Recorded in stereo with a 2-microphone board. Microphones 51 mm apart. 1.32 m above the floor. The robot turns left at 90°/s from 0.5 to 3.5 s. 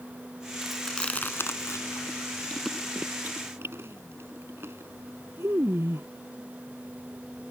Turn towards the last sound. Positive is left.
turn(degrees=-55)  # may be behind; listen again after turning